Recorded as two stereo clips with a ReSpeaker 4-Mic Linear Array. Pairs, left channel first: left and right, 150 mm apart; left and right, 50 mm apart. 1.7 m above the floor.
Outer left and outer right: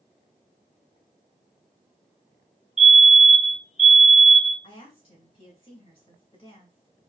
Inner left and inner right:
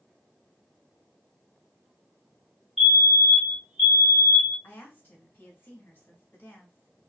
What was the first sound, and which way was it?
A fire alarm, 5° right (ahead or behind).